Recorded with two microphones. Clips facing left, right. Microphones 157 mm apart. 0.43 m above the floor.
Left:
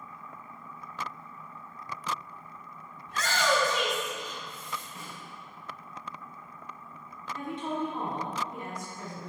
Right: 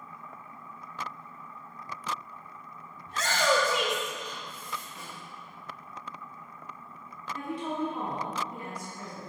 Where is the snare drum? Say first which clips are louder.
Even; 35° left (ahead or behind), 2 m.